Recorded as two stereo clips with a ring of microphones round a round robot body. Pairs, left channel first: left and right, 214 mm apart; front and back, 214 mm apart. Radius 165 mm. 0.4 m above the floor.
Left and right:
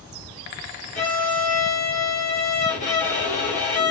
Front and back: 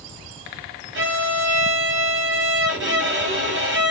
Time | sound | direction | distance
0.9 | a violin | 155° left | 1.6 m